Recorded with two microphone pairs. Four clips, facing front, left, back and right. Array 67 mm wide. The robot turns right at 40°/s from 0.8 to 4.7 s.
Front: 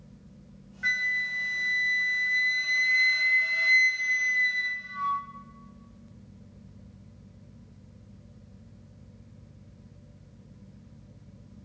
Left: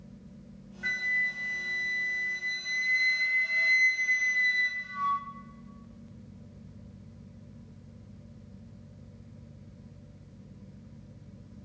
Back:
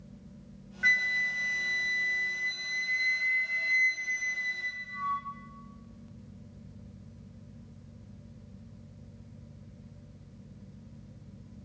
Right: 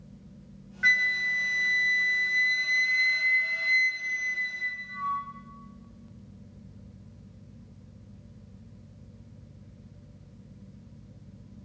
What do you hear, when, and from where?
0.8 s a flute: 110° right, 0.6 m; by 5.2 s 45° left, 0.6 m